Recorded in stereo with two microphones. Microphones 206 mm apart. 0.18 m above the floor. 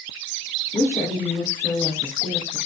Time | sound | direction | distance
0.7 | a woman speaking | 15° left (ahead or behind) | 2.5 m